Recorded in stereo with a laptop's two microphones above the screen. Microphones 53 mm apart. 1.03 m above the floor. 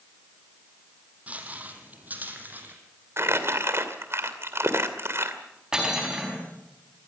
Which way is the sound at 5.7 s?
15° right (ahead or behind).